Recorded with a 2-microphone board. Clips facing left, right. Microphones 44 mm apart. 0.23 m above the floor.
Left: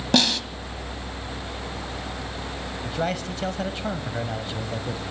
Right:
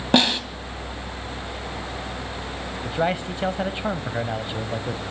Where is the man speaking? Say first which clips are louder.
Right 4 dB; 20° right (ahead or behind), 1.0 m.